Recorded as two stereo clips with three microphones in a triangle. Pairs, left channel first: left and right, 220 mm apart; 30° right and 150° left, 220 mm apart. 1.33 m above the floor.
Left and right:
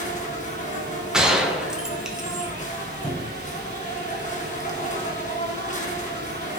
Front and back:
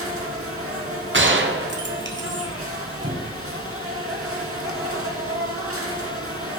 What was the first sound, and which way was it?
An insect, 145° left.